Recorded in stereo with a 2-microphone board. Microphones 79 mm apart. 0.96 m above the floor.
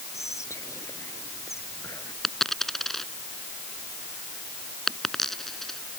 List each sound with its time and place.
0.1 s whispering: 40° left (ahead or behind)
2.2 s a dropped coin: 5° left (ahead or behind)